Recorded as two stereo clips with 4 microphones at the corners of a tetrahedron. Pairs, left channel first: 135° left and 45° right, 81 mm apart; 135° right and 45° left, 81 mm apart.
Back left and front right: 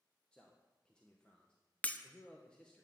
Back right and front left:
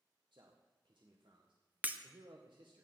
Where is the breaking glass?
85° left, 1.1 m.